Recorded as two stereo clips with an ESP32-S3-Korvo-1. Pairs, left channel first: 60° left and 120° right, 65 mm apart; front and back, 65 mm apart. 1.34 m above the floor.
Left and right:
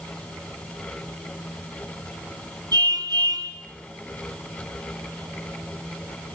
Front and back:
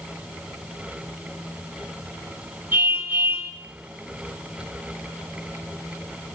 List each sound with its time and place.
2.7 s a car horn: 120° right, 10 m